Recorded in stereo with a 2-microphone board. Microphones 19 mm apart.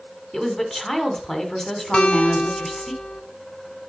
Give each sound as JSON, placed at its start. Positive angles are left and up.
{"t": 0.3, "sound": "a woman speaking", "side_deg": 10, "distance_m": 1.9}
{"t": 1.9, "sound": "a guitar", "side_deg": 80, "distance_m": 0.5}